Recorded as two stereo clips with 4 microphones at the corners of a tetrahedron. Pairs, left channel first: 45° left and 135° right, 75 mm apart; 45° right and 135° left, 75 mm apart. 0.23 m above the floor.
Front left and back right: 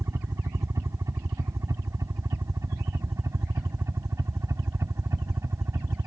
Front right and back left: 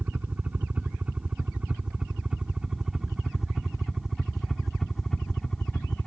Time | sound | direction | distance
0.0 | a helicopter | 165° right | ?